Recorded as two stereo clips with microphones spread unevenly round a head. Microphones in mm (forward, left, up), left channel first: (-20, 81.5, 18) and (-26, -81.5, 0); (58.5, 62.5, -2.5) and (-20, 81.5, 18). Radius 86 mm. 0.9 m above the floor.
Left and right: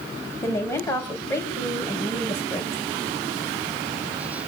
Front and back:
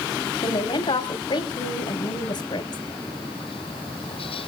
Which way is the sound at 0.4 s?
10° left.